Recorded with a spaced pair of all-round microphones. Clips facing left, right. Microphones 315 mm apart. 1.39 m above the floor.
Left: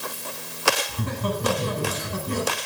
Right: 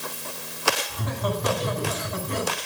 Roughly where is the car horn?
No car horn in this recording.